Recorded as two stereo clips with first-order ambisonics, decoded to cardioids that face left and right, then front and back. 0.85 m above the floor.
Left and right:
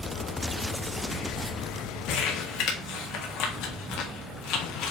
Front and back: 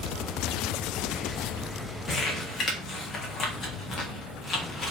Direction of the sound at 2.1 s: 65° left.